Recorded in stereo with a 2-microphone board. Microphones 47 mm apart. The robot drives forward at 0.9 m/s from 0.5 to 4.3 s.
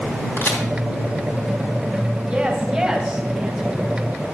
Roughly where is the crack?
Left.